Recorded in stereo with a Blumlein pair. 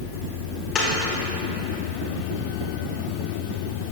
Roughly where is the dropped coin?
Ahead.